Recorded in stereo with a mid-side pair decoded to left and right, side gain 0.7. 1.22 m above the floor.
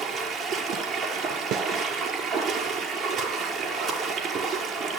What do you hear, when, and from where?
0.0 s running water: 40° right, 6 m
1.5 s a snare drum: 50° right, 3 m